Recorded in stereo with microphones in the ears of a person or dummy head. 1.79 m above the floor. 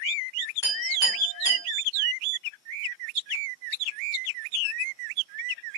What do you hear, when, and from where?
0.6 s a clink: 25° left (ahead or behind), 1.5 m